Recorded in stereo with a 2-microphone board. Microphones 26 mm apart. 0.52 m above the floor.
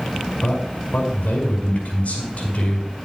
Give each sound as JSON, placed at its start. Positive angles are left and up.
{"t": 0.4, "sound": "a man speaking", "side_deg": 75, "distance_m": 5.5}